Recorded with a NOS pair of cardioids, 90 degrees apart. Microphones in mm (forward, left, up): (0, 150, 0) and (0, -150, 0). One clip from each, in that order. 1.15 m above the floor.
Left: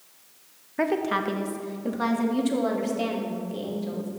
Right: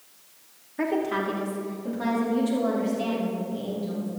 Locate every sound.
0.8 s a woman speaking: 35° left, 1.6 m; by 4.1 s 60° left, 4 m